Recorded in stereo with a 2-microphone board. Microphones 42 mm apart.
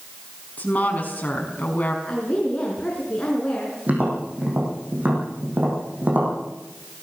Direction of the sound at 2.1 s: 20° left (ahead or behind).